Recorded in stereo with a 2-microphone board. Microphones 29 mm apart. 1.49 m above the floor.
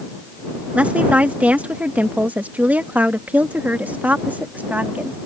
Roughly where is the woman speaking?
Right.